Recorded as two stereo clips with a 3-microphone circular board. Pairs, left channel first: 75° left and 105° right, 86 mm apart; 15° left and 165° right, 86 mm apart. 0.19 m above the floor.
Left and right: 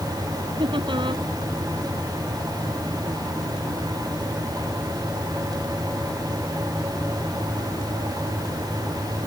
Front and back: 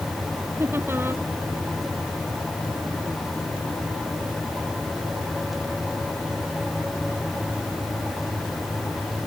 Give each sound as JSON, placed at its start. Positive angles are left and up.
{"t": 0.6, "sound": "laughter", "azimuth_deg": -105}